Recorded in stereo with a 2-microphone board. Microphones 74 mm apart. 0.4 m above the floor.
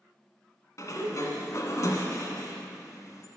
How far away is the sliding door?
About 0.9 m.